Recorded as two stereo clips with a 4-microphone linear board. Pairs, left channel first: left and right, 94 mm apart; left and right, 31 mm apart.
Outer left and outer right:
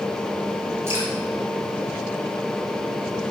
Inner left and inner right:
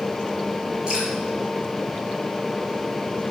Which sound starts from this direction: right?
Dripping, at 0.9 s.